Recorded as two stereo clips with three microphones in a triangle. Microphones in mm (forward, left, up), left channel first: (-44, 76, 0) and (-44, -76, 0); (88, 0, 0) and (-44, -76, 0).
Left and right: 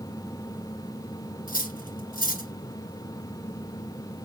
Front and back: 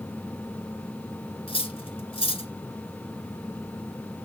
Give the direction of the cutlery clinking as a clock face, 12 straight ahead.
9 o'clock.